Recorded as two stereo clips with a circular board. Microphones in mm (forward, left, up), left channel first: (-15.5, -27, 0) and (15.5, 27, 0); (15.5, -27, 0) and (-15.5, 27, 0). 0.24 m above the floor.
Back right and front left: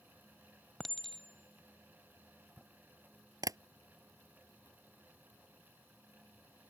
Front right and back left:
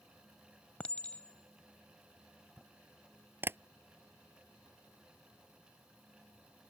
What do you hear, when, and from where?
0.8 s a clink: 40° right
3.4 s tapping: 70° left